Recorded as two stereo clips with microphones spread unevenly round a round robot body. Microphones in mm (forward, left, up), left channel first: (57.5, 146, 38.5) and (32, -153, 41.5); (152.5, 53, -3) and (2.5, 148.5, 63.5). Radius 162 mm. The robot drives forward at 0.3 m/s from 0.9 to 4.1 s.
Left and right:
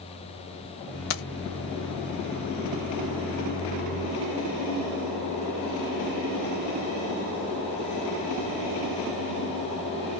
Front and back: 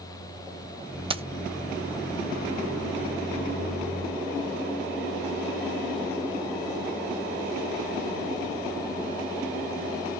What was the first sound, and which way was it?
Keys jangling, 70° left.